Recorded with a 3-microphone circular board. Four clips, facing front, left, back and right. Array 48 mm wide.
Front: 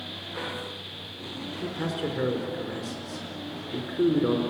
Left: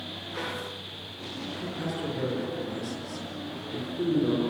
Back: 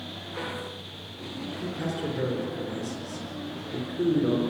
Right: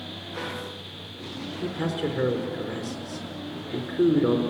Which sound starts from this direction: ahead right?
A man speaking, at 1.6 s.